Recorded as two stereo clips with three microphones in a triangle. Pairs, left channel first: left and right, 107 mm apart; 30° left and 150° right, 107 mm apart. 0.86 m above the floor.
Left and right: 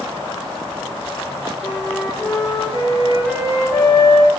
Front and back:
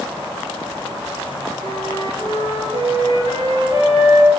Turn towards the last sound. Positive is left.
turn(degrees=-170)